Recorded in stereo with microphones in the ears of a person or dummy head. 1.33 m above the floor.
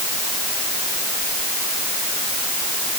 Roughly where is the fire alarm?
No fire alarm in this recording.